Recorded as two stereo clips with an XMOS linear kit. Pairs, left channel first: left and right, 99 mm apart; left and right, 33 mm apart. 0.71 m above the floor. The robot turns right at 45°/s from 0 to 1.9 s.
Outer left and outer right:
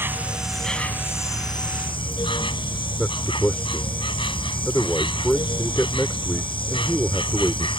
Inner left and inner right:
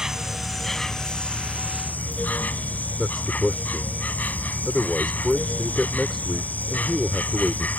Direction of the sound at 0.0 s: 25° right.